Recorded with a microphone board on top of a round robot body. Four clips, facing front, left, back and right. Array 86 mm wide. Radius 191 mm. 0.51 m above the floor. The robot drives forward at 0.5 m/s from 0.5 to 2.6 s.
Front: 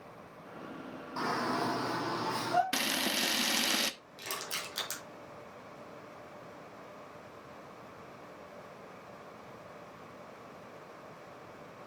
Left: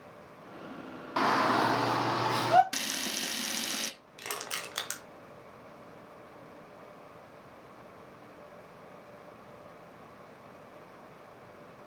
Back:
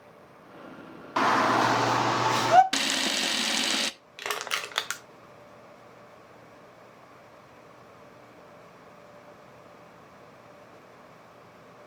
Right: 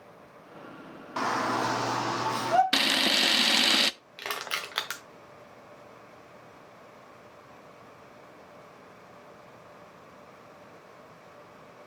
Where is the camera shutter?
105° right, 0.8 m.